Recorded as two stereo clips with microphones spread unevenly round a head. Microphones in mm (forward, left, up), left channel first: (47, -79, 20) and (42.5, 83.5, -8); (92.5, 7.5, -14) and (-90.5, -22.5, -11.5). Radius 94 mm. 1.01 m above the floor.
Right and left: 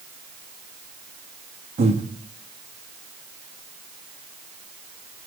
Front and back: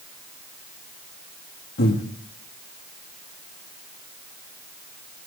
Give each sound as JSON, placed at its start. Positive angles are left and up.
{"t": 1.8, "sound": "breathing", "azimuth_deg": 50, "distance_m": 1.5}